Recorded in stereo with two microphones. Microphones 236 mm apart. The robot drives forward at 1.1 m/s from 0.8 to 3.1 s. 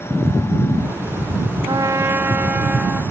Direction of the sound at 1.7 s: 20° right (ahead or behind).